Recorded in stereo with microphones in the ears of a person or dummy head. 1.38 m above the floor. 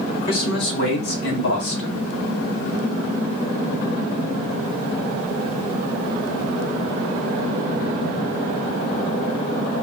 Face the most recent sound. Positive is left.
turn(degrees=75)  # may be behind; listen again after turning